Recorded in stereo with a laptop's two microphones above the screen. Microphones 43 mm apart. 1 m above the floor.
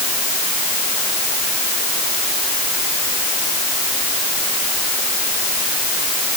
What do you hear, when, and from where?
Only background noise.